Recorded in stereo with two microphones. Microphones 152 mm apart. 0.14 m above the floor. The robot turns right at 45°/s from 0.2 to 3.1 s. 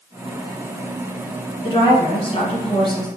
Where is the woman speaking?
60° left, 1.4 m; by 3.1 s 125° left, 1.4 m.